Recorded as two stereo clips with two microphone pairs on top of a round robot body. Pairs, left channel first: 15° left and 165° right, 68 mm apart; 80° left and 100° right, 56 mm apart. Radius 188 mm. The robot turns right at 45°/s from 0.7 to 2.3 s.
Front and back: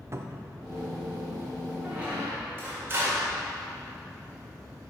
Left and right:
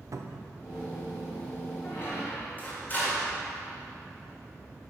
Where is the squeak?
120° left, 1.9 m; by 3.4 s 140° left, 1.9 m.